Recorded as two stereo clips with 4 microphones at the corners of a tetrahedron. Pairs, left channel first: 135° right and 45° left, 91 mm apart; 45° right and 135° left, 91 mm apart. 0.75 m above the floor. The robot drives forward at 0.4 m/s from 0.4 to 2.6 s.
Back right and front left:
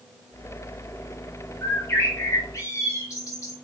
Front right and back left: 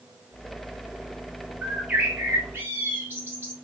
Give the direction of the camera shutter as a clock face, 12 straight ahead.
I don't hear a camera shutter.